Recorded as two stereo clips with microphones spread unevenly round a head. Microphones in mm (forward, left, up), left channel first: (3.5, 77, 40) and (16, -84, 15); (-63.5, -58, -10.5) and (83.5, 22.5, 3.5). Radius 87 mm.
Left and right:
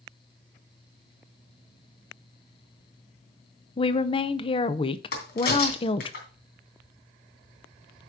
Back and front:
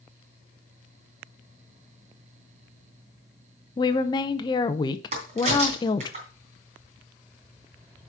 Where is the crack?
80° left, 3 m.